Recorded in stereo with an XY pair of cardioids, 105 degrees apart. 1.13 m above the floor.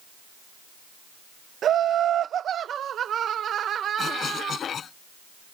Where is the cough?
50° left.